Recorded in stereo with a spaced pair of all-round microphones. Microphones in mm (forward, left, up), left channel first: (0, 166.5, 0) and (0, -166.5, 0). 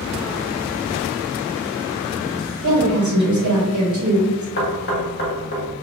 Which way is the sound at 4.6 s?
40° left (ahead or behind).